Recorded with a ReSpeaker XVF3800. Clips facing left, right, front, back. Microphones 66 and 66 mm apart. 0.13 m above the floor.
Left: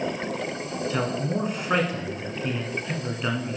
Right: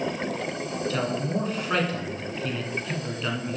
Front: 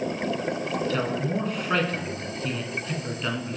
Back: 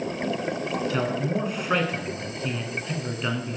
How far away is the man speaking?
About 1.4 m.